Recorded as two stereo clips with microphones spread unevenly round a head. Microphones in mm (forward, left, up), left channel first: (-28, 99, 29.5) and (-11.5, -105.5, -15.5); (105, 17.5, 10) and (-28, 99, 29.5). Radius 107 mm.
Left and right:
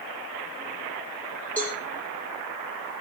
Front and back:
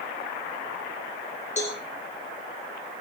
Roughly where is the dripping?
No dripping in this recording.